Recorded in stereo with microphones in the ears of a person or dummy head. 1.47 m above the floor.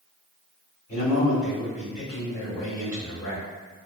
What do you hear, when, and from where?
0.9 s a man speaking: 20° left (ahead or behind), 1.4 m